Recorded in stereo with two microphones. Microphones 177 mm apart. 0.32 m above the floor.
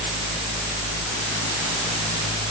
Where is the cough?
I don't hear a cough.